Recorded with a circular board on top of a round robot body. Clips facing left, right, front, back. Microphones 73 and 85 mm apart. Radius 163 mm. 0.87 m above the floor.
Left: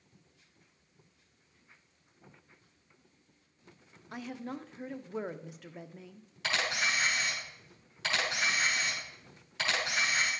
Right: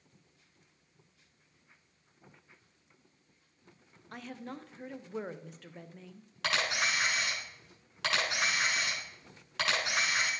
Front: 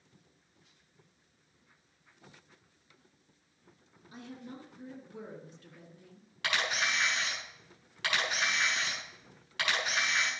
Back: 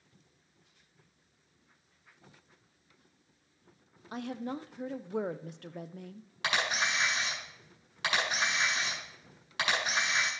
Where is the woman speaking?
175° left, 0.6 m.